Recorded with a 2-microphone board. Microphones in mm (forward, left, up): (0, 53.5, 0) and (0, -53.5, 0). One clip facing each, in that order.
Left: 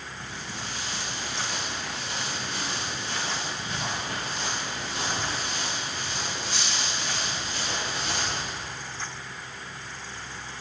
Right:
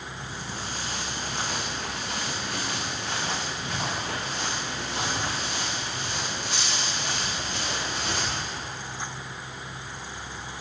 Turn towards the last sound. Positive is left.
turn(degrees=-80)